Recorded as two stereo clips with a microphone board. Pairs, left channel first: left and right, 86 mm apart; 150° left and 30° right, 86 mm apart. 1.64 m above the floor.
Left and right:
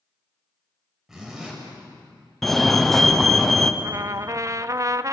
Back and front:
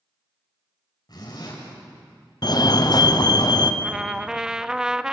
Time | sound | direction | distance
1.1 | a zipper | 175° right | 7.5 m
2.4 | a fire alarm | 175° left | 1.4 m
3.8 | a trumpet | 105° right | 0.7 m